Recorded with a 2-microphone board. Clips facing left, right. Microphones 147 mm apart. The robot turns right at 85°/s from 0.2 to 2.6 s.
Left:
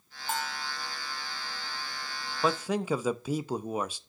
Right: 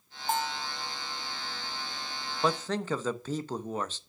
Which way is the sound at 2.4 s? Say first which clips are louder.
Left 1 dB; centre (ahead or behind).